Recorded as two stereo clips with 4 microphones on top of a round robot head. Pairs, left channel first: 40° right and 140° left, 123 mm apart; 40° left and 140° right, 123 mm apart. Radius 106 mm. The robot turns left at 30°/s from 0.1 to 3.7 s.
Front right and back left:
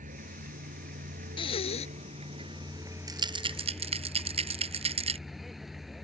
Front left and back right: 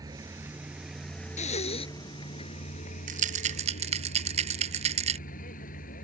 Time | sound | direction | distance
0.0 | a vehicle | 160° left | ?
1.4 | breathing | 10° left | ?
3.1 | a rattle | 160° right | ?